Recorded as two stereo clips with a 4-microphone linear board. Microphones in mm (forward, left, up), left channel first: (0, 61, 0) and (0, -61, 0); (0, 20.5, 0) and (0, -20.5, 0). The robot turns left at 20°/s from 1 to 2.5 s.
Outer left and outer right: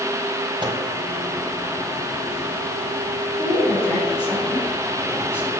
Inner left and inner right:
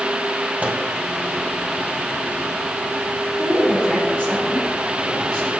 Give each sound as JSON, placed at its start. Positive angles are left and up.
{"t": 0.6, "sound": "a microwave", "side_deg": -40, "distance_m": 1.7}
{"t": 3.4, "sound": "a woman speaking", "side_deg": 20, "distance_m": 5.5}